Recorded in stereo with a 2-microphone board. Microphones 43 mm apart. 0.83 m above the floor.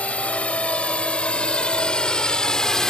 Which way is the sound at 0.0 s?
30° left (ahead or behind).